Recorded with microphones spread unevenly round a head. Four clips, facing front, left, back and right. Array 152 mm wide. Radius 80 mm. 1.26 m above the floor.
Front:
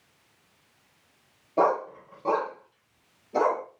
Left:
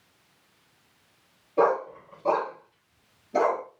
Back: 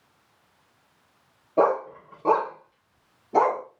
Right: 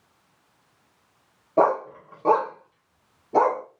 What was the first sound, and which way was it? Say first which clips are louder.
A dog barking: right 2 dB, back 2 dB; 100° right.